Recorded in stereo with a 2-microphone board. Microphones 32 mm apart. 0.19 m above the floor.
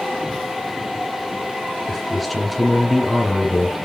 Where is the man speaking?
Centre (ahead or behind), 2 m.